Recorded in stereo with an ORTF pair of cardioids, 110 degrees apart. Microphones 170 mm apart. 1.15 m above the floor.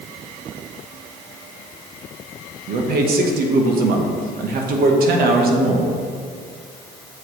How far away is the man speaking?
About 1.1 m.